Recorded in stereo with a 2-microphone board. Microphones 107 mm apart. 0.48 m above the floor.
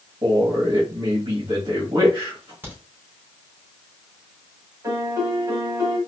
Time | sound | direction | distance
0.2 | a man speaking | 50° right (ahead or behind) | 2 m
2.6 | a crack | 20° right (ahead or behind) | 3 m
4.8 | a piano | 30° right (ahead or behind) | 1.6 m